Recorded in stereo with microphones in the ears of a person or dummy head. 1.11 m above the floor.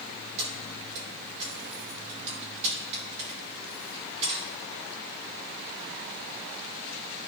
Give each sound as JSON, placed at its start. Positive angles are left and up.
{"t": 0.4, "sound": "keys jangling", "side_deg": -35, "distance_m": 3.0}